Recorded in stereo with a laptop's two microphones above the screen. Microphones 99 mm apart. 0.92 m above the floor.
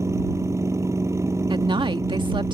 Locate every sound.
0.0 s a machine running: 30° right (ahead or behind)
1.5 s a woman speaking: 55° right (ahead or behind)